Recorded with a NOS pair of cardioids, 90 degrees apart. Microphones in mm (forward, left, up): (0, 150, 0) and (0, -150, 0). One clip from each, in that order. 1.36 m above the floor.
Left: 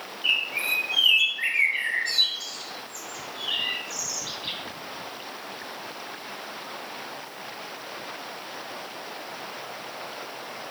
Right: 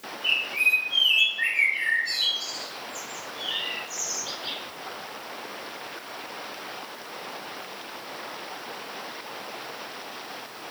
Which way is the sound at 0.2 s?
20° left.